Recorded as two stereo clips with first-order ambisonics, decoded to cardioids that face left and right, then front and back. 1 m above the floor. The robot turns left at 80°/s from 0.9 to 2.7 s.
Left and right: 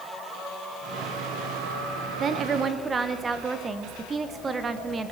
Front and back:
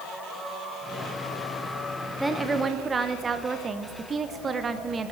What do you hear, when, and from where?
2.2 s a woman speaking: 95° right, 0.8 m; by 5.1 s 135° right, 0.8 m